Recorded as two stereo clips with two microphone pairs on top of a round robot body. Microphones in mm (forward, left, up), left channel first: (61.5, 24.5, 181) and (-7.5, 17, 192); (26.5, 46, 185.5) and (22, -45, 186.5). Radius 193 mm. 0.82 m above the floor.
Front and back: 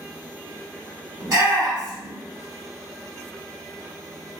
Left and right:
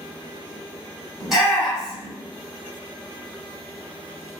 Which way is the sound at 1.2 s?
175° right.